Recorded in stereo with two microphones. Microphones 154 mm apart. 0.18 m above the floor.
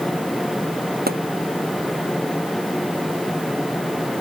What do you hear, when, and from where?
1.1 s a pop: 75° right (ahead or behind)